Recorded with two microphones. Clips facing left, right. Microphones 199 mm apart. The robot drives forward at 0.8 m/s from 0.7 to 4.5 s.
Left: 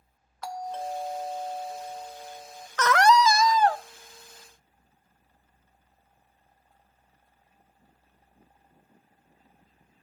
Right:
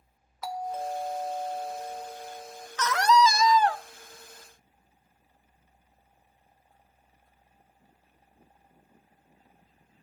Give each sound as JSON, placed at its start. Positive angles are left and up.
{"t": 0.4, "sound": "a doorbell", "side_deg": -5, "distance_m": 0.8}
{"t": 2.8, "sound": "a scream", "side_deg": 65, "distance_m": 0.5}